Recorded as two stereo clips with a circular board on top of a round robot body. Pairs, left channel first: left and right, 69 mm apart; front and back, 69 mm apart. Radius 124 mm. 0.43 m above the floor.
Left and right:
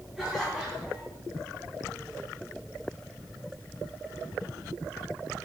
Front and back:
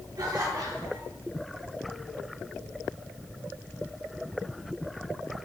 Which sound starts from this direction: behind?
Laughter, at 0.2 s.